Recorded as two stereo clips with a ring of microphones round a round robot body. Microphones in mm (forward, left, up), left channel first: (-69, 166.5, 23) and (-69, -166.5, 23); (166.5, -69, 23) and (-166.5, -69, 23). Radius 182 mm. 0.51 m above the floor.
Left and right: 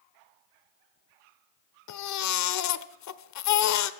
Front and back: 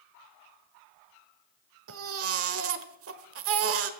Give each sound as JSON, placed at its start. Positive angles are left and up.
{"t": 1.9, "sound": "a baby crying", "azimuth_deg": 130, "distance_m": 1.1}